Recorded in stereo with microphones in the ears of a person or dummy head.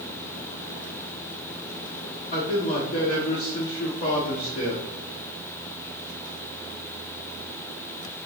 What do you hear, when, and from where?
2.3 s a man speaking: 35° left (ahead or behind), 4.5 m